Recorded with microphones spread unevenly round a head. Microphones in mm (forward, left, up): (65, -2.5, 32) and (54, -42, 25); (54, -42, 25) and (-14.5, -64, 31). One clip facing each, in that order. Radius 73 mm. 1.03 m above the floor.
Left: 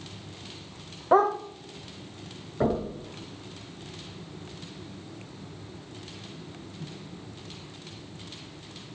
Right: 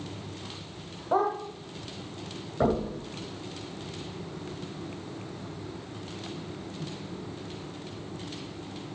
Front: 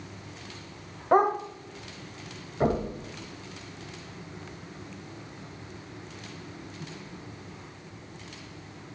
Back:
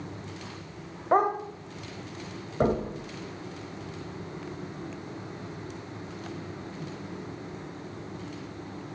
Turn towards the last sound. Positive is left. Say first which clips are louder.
# right 1 dB, back 1 dB
turn(degrees=170)